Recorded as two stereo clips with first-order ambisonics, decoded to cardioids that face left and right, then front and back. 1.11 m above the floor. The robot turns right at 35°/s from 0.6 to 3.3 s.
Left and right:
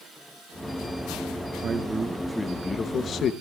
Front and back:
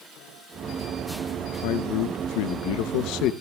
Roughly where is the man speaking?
Ahead right.